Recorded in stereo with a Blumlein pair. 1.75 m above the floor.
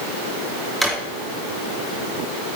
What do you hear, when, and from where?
0.8 s a drawer: 5° right, 2.5 m